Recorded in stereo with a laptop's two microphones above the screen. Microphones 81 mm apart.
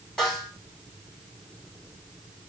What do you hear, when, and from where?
0.2 s a snare drum: 5° left (ahead or behind), 2.5 m